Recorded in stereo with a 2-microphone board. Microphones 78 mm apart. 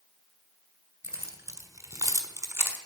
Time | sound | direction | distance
1.0 | keys jangling | 30° right (ahead or behind) | 2.5 m